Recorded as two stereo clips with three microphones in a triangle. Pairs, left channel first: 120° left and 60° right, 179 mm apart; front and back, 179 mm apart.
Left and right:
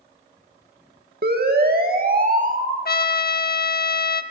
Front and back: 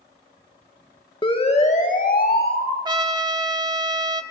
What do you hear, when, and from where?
1.2 s a siren: 60° right, 2 m; by 2.8 s 15° right, 3 m
2.9 s a trumpet: 120° left, 1.1 m